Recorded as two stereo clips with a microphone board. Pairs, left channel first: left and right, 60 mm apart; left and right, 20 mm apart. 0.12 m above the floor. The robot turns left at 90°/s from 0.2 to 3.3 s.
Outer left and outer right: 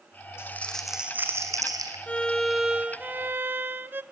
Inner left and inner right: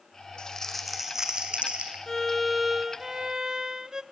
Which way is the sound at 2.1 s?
40° left.